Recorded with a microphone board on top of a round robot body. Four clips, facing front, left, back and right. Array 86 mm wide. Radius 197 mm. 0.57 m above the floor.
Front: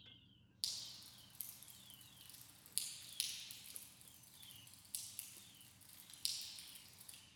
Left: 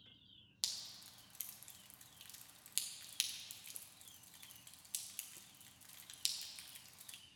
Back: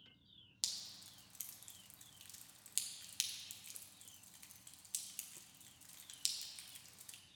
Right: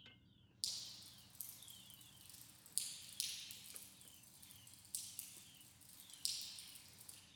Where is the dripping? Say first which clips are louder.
Left 4 dB, back 2 dB; 110° left, 1.1 m.